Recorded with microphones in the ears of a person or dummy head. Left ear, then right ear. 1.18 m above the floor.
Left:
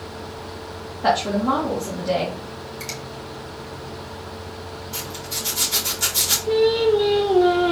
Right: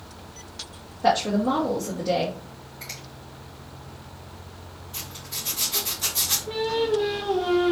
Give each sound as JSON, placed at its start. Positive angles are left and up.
{"t": 1.0, "sound": "a woman speaking", "side_deg": 10, "distance_m": 0.9}
{"t": 2.8, "sound": "a finger snap", "side_deg": 75, "distance_m": 1.8}
{"t": 4.9, "sound": "a zipper", "side_deg": 85, "distance_m": 2.5}
{"t": 6.5, "sound": "singing", "side_deg": 85, "distance_m": 2.5}